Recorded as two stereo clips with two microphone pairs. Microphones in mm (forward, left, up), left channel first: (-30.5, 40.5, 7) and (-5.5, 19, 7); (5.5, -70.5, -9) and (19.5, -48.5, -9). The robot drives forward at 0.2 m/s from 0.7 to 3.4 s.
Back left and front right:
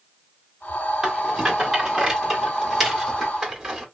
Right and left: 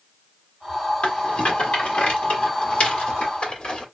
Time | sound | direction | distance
1.0 | a rattle | 110° right | 1.5 m